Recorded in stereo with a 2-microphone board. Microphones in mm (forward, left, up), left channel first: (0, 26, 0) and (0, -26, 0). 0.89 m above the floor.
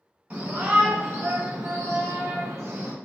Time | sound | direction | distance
0.3 | a shout | 25° right (ahead or behind) | 1.1 m